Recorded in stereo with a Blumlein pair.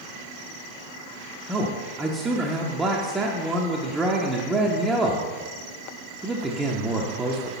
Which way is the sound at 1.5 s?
10° right.